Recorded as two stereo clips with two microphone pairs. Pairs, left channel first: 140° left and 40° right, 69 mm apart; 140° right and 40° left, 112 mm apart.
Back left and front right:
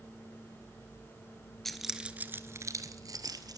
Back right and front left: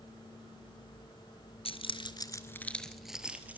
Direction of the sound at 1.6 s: 135° right.